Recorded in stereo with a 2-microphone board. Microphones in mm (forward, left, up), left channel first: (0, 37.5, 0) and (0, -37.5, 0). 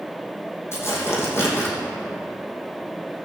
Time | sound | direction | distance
0.7 | tearing paper | 35° left (ahead or behind) | 3.5 m